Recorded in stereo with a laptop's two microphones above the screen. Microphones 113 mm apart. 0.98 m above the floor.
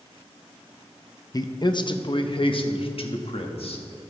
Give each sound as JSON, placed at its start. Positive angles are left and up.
{"t": 1.3, "sound": "a man speaking", "side_deg": 35, "distance_m": 0.8}